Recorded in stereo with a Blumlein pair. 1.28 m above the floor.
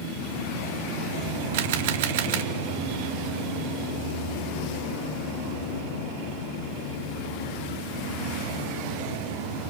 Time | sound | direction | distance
1.5 | a camera shutter | 55° right | 1.5 m